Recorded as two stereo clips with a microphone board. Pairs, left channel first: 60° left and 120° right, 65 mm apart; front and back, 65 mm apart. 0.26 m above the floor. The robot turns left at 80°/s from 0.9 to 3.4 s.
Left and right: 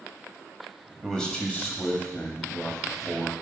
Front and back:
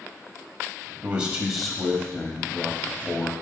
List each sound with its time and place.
1.0 s a man speaking: 140° left, 1.5 m; by 3.3 s 45° right, 1.5 m